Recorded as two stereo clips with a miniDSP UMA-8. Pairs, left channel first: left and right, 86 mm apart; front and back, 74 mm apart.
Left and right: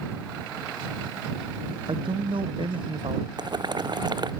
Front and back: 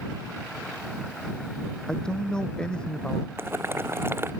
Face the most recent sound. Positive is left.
turn(degrees=-120)